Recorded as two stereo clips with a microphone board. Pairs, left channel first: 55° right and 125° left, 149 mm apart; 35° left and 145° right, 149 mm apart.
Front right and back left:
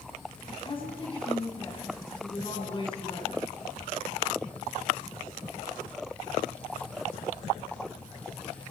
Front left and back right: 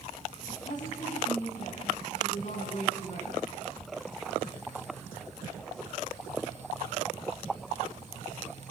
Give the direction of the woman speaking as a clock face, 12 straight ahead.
12 o'clock.